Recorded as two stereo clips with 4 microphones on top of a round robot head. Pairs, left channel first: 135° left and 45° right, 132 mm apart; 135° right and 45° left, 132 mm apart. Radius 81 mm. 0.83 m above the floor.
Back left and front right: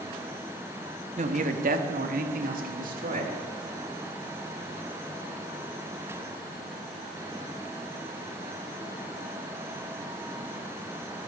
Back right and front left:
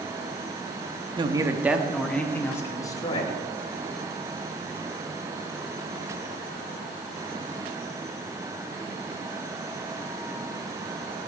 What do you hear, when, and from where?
1.2 s a man speaking: 10° right, 1.2 m; by 3.4 s 75° right, 2.5 m